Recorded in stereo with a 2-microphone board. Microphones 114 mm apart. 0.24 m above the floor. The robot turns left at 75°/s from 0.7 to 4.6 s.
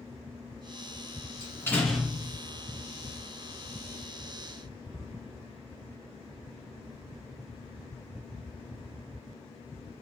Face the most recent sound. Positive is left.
turn(degrees=160)